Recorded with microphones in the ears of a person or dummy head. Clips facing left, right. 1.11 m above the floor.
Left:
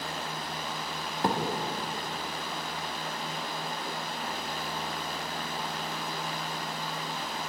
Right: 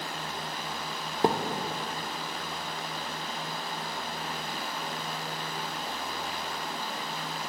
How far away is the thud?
About 1.2 m.